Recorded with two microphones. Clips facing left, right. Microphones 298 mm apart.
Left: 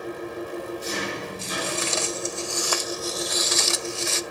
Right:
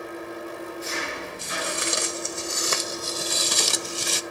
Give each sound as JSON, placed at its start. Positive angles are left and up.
{"t": 0.0, "sound": "an engine running", "side_deg": 40, "distance_m": 5.5}
{"t": 1.4, "sound": "footsteps", "side_deg": -15, "distance_m": 2.0}